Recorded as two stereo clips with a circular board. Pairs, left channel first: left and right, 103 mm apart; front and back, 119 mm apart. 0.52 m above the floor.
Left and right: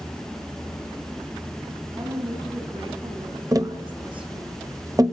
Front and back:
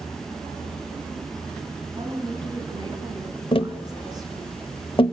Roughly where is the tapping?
Ahead right.